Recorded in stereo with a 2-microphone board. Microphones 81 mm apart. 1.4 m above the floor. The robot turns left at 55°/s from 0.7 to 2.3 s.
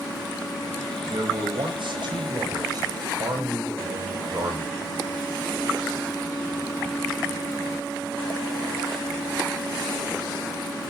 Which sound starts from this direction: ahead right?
A man speaking, at 1.1 s.